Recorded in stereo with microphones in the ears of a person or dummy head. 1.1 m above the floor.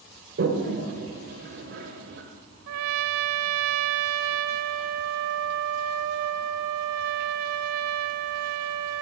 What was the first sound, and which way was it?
A toilet flushing, 45° right (ahead or behind).